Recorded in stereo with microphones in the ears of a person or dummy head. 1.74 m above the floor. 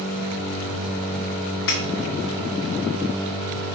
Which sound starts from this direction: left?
Breaking glass, at 1.7 s.